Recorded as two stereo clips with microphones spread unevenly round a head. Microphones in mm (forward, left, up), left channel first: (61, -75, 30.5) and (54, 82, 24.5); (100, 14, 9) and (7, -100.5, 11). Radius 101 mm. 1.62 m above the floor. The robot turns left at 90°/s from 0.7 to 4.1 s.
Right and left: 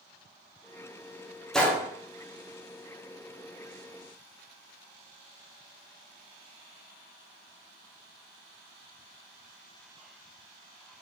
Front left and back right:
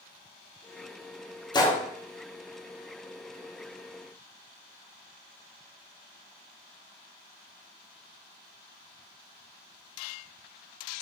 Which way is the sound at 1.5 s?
5° right.